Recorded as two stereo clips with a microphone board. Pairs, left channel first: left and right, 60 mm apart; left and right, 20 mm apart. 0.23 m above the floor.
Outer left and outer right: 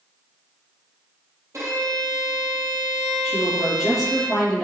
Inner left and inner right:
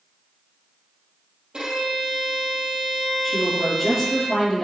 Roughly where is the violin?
Right.